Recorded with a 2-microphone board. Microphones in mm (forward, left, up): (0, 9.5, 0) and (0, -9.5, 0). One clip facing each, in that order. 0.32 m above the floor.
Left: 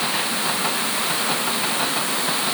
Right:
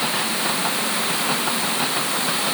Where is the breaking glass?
No breaking glass in this recording.